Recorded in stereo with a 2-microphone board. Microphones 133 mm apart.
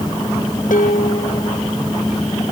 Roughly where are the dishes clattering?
Left.